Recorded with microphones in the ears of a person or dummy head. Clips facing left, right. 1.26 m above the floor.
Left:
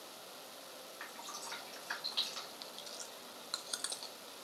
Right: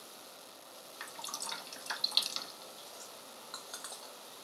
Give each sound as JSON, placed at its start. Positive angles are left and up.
{"t": 1.0, "sound": "dripping", "side_deg": -55, "distance_m": 0.8}
{"t": 2.6, "sound": "chewing", "side_deg": 40, "distance_m": 0.6}